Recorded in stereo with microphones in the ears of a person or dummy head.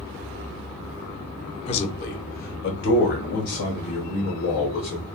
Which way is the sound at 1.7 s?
30° left (ahead or behind).